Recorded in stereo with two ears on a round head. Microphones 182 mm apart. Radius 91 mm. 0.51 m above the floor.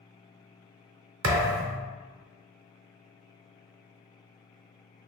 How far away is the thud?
About 0.7 m.